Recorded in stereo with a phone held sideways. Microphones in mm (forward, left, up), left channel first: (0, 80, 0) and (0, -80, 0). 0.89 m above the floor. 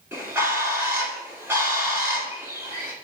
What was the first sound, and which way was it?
A bird, 15° right (ahead or behind).